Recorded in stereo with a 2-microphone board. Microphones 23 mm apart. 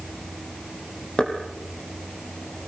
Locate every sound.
1.2 s knocking: 35° left (ahead or behind), 5.5 m